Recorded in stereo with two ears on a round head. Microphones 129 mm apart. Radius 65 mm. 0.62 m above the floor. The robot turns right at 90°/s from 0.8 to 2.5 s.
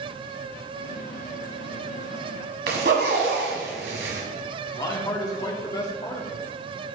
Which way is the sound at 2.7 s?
80° right.